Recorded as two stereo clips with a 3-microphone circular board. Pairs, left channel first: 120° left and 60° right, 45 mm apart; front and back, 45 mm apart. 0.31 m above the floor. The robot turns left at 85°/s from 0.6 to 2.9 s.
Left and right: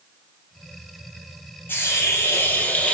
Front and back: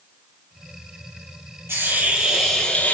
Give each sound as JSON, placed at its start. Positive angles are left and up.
{"t": 1.7, "sound": "a hiss", "azimuth_deg": 160, "distance_m": 5.0}